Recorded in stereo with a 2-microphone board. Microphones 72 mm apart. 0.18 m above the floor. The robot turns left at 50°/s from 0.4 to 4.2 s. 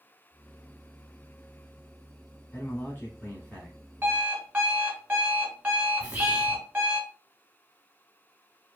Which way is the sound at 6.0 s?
20° right (ahead or behind).